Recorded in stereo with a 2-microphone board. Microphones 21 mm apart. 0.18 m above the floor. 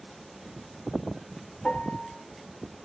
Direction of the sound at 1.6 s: 55° left (ahead or behind).